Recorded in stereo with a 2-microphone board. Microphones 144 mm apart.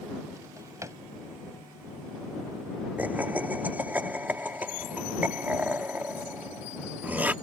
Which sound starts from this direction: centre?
Laughter, at 3.0 s.